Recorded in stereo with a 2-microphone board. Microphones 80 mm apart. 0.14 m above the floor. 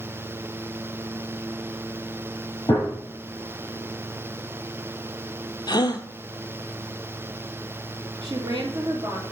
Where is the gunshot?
50° left (ahead or behind), 4.5 m.